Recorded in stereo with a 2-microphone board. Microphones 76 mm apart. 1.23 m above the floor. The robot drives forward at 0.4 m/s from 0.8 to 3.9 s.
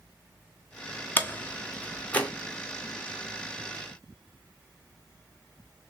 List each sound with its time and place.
1.2 s a door slam: 25° left (ahead or behind), 0.8 m; by 2.3 s 15° left (ahead or behind), 1.2 m